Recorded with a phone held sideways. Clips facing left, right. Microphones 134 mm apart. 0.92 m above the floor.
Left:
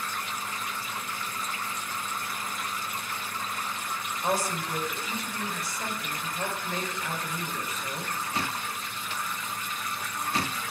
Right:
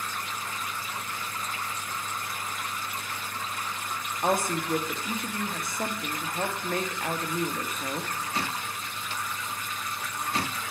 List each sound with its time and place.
4.2 s a woman speaking: 55° right (ahead or behind), 1.0 m